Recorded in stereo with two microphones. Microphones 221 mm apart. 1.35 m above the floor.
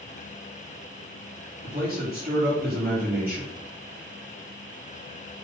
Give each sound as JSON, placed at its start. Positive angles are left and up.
{"t": 1.6, "sound": "a man speaking", "side_deg": -40, "distance_m": 4.0}